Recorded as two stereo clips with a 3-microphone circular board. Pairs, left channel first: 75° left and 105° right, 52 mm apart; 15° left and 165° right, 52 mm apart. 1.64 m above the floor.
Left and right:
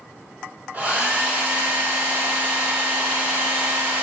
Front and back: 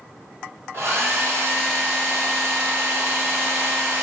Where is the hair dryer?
160° right, 2 m.